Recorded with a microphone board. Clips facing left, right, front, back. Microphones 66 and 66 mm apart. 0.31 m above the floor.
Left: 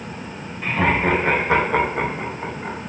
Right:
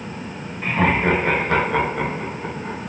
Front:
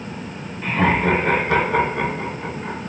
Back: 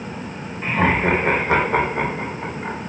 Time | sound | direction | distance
0.6 | laughter | 155° right | 1.0 m